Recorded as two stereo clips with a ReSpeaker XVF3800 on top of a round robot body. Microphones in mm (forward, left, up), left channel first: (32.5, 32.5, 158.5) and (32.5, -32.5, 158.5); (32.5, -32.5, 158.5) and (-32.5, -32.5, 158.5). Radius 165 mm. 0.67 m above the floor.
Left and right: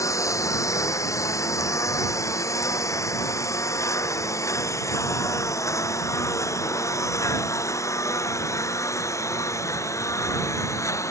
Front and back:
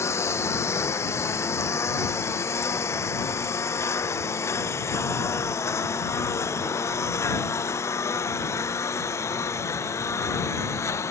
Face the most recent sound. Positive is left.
turn(degrees=50)